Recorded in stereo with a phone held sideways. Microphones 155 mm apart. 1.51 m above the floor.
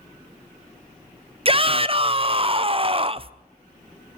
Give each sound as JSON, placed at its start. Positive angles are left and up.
{"t": 1.4, "sound": "a shout", "side_deg": -35, "distance_m": 0.8}